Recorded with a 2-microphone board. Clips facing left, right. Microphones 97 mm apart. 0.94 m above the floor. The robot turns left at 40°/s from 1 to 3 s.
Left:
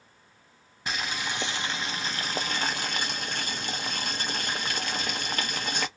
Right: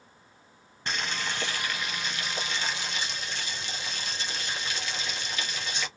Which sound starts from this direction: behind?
Boiling, at 0.9 s.